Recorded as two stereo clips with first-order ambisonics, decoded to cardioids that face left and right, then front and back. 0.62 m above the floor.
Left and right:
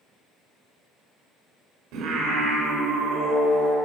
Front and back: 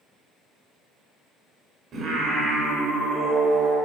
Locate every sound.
1.9 s singing: 120° right, 1.5 m